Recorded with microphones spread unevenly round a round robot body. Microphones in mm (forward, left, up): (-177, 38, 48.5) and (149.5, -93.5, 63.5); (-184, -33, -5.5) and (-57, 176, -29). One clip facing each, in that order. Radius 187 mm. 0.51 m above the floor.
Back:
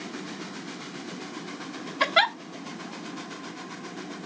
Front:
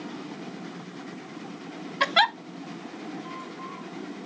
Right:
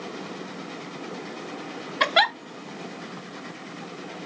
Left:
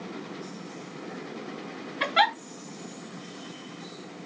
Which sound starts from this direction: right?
A giggle, at 2.0 s.